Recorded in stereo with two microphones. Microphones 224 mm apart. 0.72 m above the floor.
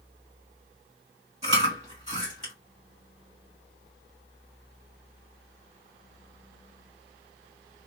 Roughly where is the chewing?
Right.